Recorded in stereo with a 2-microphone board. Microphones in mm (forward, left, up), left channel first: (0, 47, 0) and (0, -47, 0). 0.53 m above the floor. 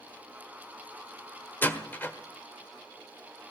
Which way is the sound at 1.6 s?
20° left (ahead or behind).